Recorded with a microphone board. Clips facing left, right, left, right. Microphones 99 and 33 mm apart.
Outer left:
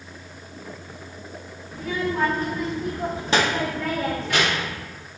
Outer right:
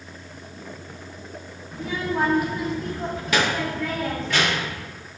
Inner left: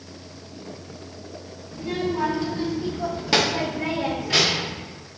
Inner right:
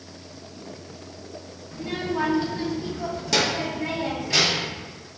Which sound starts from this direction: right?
A child speaking, at 1.7 s.